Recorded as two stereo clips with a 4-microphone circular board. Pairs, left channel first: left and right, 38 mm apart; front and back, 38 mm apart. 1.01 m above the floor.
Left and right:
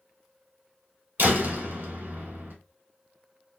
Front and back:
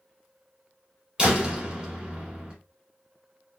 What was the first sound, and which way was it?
A door slam, 110° right.